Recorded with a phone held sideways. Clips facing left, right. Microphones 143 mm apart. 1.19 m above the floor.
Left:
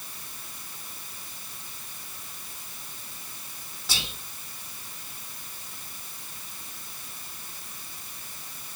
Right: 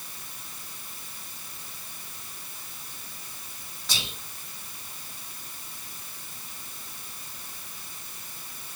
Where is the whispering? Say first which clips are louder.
Even; 5° left (ahead or behind), 1.4 m.